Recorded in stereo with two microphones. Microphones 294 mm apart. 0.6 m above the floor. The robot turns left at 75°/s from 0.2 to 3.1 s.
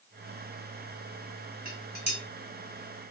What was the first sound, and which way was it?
Dishes clattering, 25° right (ahead or behind).